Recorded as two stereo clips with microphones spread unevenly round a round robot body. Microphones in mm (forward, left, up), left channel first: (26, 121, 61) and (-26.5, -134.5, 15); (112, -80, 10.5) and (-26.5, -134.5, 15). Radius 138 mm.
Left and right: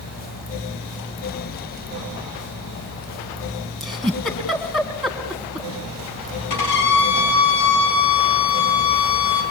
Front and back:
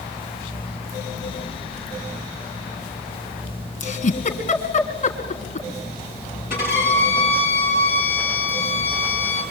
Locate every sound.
3.8 s a giggle: 10° right, 3 m
6.5 s a violin: 75° left, 6.5 m